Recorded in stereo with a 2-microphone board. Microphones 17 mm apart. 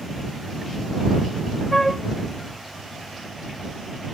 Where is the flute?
15° left (ahead or behind).